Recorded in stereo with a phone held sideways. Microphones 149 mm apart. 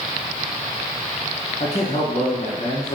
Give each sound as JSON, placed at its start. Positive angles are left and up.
{"t": 1.6, "sound": "a man speaking", "side_deg": 45, "distance_m": 0.6}